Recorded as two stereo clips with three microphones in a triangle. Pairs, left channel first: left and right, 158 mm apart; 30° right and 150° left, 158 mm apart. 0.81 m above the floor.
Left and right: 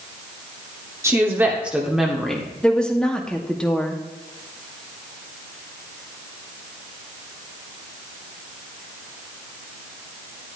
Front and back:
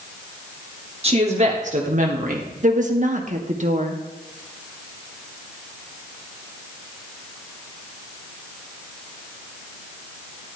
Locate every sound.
1.0 s a woman speaking: 160° right, 1.9 m; by 2.5 s 175° left, 2 m
2.6 s a woman speaking: 175° left, 1.7 m